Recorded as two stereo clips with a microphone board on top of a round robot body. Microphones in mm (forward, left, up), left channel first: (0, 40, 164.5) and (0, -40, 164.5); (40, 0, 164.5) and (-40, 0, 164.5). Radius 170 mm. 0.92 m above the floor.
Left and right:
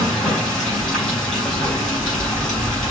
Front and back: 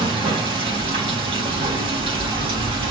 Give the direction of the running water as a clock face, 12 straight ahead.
6 o'clock.